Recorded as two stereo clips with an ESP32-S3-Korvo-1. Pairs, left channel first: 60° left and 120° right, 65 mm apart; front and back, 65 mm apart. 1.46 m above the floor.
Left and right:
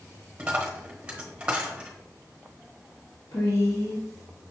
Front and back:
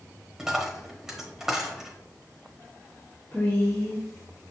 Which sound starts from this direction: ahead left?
A woman speaking, at 3.3 s.